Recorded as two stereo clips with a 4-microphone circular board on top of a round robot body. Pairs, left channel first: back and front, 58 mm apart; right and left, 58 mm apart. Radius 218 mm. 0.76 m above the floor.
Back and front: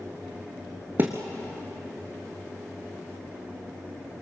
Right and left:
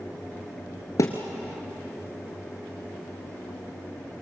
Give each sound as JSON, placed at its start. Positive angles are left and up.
{"t": 1.0, "sound": "a thud", "azimuth_deg": -60, "distance_m": 1.0}